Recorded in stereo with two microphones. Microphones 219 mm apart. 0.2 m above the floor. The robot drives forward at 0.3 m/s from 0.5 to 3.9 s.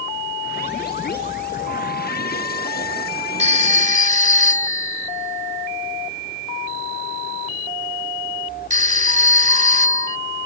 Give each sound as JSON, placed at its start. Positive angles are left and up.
{"t": 3.4, "sound": "a phone ringing", "side_deg": -30}